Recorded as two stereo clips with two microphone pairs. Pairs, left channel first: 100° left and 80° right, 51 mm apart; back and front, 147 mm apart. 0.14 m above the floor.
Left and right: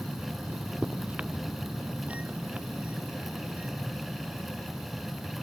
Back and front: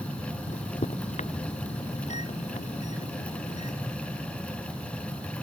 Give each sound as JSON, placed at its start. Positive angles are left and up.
{"t": 0.5, "sound": "a microwave", "azimuth_deg": -140}